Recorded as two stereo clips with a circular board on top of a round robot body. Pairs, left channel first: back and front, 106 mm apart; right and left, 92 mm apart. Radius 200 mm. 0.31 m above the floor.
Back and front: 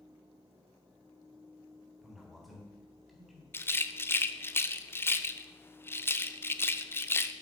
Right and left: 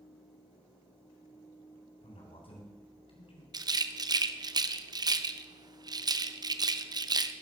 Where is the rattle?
115° left, 0.7 m.